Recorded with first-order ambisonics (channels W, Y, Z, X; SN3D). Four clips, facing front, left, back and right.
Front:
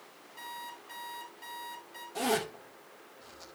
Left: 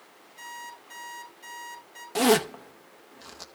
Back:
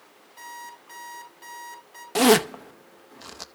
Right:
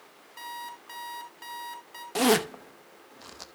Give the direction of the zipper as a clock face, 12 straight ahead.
6 o'clock.